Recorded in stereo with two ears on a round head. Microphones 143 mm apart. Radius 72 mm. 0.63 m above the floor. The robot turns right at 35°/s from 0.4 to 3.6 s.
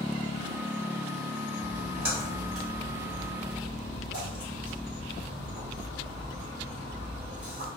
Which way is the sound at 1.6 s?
20° right (ahead or behind).